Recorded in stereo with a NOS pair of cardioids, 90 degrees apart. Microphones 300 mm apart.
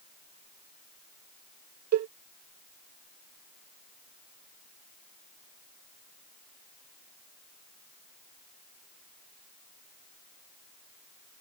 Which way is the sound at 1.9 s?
65° right.